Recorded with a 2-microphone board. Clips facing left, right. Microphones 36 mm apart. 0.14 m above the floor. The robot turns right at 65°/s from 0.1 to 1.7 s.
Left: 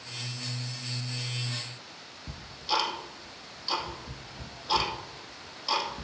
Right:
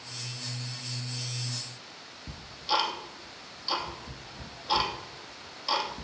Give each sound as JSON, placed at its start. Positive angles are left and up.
{"t": 2.3, "sound": "ticking", "side_deg": -5, "distance_m": 3.0}